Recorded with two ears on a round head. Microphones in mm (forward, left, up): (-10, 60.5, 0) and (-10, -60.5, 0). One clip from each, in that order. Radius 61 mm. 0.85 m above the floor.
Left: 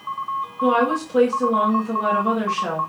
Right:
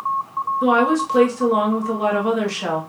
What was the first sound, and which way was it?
A woman speaking, 40° right (ahead or behind).